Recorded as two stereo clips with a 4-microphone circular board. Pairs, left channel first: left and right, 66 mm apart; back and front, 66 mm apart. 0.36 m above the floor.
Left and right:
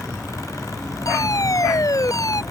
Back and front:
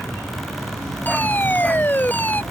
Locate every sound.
1.1 s a fire alarm: 120° left